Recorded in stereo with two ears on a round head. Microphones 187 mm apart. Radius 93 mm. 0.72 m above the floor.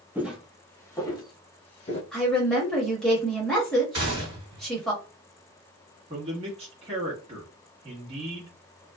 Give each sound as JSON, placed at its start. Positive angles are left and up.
{"t": 0.1, "sound": "footsteps", "side_deg": -10, "distance_m": 0.8}
{"t": 2.1, "sound": "a woman speaking", "side_deg": 5, "distance_m": 1.3}
{"t": 3.9, "sound": "a gunshot", "side_deg": -25, "distance_m": 1.7}
{"t": 6.1, "sound": "a man speaking", "side_deg": -30, "distance_m": 1.1}